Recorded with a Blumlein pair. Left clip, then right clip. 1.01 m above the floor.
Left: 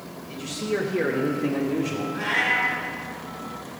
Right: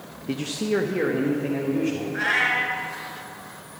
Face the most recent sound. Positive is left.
turn(degrees=-65)